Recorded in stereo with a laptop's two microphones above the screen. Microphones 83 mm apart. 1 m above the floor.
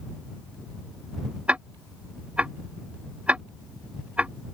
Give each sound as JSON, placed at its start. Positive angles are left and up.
{"t": 1.5, "sound": "ticking", "side_deg": -15}